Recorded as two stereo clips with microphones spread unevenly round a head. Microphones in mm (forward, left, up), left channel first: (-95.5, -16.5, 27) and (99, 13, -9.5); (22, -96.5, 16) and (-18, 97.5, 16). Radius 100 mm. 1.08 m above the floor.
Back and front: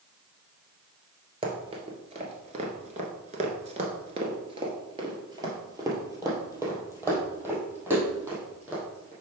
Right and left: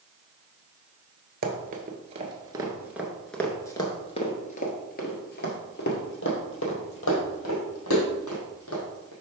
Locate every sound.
1.4 s running footsteps: 75° left, 1.4 m; by 9.1 s 75° right, 3.5 m